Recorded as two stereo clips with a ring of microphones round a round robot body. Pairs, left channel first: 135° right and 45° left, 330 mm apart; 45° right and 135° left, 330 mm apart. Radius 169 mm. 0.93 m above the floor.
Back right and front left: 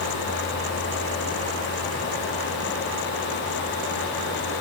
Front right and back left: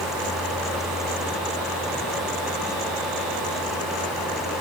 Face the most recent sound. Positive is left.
No sound to turn to.